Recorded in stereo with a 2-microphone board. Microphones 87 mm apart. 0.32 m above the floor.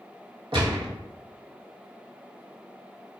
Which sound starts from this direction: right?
A gunshot, at 0.5 s.